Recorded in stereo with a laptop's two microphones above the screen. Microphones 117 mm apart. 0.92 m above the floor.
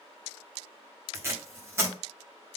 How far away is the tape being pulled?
About 0.9 m.